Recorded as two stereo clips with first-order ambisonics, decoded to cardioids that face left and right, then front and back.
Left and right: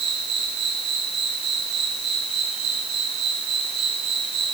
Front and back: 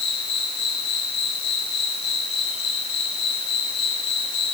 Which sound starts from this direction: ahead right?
An insect, at 0.0 s.